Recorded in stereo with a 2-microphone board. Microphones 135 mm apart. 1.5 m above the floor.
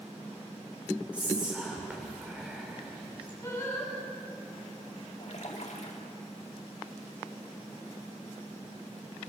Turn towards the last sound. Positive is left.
turn(degrees=65)  # may be behind; listen again after turning